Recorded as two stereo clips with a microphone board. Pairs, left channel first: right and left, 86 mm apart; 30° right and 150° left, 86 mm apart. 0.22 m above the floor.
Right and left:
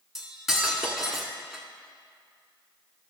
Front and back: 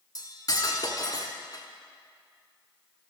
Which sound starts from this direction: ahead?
Cutlery clinking, at 0.1 s.